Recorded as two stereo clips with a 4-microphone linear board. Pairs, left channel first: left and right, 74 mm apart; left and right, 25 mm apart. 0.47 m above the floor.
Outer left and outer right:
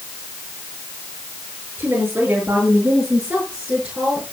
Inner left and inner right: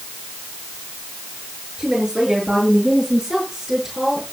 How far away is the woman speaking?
About 7.5 m.